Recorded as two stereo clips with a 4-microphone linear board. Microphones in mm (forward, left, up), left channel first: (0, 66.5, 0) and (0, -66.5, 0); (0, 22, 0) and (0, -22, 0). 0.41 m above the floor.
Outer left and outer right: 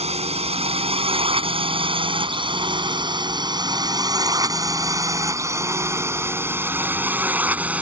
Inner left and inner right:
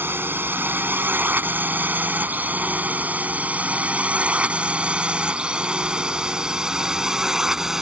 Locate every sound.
0.0 s a drone: 50° right (ahead or behind); by 7.8 s 10° right (ahead or behind)